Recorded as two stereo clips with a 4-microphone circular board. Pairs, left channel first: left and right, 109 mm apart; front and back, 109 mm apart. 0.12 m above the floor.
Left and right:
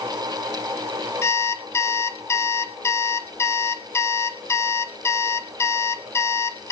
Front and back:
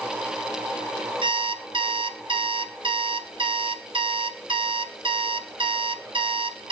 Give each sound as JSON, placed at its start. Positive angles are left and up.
{"t": 1.2, "sound": "an alarm clock", "azimuth_deg": 150, "distance_m": 1.1}